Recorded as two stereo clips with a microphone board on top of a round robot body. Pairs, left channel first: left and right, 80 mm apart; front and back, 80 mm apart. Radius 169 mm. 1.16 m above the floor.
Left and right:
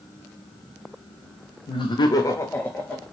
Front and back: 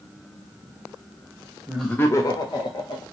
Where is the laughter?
100° left, 0.8 m; by 3.0 s 15° left, 2.0 m.